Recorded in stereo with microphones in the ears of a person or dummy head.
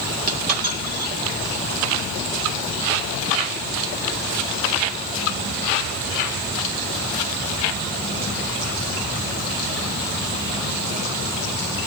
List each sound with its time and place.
0.3 s a dropped coin: 45° right (ahead or behind), 1.8 m